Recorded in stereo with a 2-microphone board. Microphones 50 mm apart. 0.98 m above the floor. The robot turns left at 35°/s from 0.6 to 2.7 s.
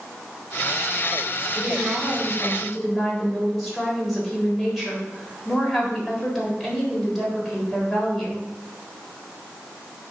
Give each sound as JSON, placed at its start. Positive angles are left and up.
{"t": 1.6, "sound": "a woman speaking", "azimuth_deg": -145, "distance_m": 3.5}